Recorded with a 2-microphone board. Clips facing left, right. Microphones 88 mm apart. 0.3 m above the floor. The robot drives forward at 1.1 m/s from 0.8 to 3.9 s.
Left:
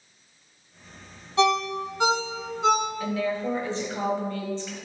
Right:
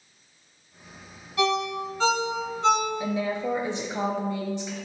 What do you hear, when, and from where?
1.4 s a ringtone: 25° left (ahead or behind), 1.0 m; by 2.9 s 10° left (ahead or behind), 2.5 m
3.0 s a woman speaking: 25° right (ahead or behind), 0.9 m; by 4.7 s 15° right (ahead or behind), 1.3 m